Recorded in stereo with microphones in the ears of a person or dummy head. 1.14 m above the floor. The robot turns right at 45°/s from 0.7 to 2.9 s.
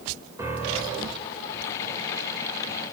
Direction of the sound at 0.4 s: 15° right (ahead or behind).